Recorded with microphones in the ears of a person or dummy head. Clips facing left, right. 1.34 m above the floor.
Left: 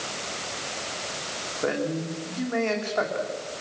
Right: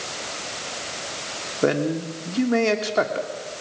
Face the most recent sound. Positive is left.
turn(degrees=-55)  # may be behind; listen again after turning